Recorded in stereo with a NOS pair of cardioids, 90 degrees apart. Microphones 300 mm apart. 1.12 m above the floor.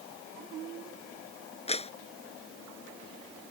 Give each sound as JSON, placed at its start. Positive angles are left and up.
{"t": 1.7, "sound": "a clap", "azimuth_deg": 20}